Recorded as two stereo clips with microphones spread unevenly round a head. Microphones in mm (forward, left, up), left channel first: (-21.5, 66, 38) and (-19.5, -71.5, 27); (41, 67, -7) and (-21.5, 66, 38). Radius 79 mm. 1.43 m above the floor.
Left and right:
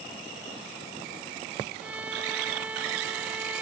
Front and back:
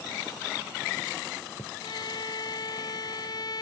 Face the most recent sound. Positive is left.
turn(degrees=-10)